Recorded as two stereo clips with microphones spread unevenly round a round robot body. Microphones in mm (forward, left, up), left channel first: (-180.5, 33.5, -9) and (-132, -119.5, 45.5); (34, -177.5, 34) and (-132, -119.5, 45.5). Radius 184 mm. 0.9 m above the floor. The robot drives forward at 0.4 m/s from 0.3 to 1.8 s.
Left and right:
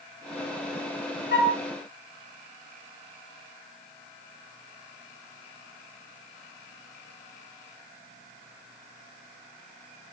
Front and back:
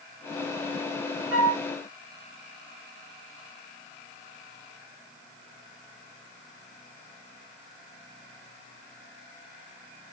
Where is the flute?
80° left, 1.0 m; by 1.6 s 90° left, 1.0 m.